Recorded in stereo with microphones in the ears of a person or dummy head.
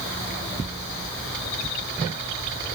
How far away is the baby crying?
No baby crying in this recording.